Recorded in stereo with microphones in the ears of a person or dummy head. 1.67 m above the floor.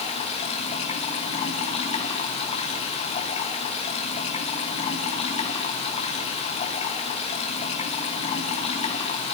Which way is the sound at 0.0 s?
35° left (ahead or behind).